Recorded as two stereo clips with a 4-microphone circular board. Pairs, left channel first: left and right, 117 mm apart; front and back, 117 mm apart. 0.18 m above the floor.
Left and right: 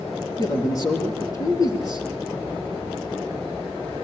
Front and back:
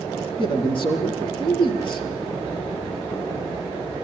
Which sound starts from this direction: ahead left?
A man speaking, at 0.4 s.